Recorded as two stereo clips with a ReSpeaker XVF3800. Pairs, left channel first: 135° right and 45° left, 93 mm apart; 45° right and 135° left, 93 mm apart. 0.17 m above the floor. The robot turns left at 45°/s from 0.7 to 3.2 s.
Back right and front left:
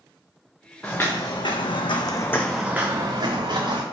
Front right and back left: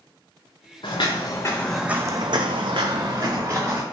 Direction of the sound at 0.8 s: 55° right.